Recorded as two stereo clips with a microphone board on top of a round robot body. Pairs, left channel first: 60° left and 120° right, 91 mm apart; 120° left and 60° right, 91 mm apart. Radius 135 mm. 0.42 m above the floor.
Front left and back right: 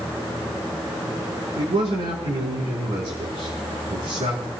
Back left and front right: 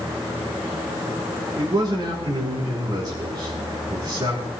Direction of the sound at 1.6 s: 105° right.